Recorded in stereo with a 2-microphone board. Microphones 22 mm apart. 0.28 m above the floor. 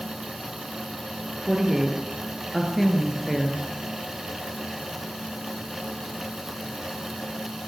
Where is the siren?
No siren in this recording.